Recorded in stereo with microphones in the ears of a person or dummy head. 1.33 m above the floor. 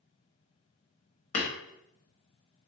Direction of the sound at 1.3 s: 35° left (ahead or behind).